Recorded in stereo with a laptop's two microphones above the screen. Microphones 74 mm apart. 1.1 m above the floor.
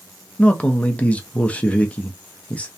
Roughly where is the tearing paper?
No tearing paper in this recording.